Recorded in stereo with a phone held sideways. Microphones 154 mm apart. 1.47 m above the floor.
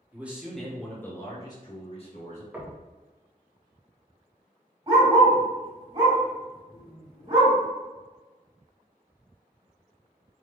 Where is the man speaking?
10° right (ahead or behind), 1.3 m; by 2.4 s 50° left (ahead or behind), 1.3 m.